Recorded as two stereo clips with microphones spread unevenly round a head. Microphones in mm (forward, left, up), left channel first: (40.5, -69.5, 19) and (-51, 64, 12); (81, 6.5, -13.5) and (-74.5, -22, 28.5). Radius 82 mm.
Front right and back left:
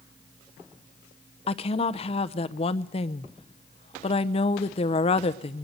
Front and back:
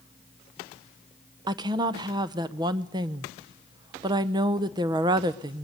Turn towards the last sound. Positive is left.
turn(degrees=-110)